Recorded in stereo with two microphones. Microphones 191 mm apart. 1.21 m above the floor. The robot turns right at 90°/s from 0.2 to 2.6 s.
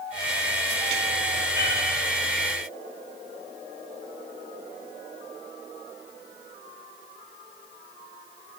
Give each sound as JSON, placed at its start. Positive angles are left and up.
{"t": 1.5, "sound": "a cat meowing", "side_deg": 70, "distance_m": 7.0}